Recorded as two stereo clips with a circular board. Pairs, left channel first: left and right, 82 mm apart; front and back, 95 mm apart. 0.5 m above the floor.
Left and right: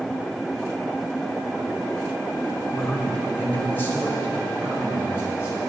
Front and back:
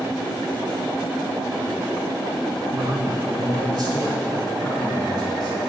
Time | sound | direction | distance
2.7 | a man speaking | 175° left | 0.9 m